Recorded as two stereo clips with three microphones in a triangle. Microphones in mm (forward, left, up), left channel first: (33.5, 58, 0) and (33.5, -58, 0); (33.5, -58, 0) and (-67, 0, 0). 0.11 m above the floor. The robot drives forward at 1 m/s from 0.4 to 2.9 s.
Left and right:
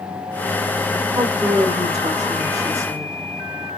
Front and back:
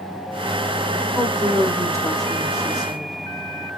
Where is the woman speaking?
145° right, 4.5 m; by 3.1 s 155° right, 6 m.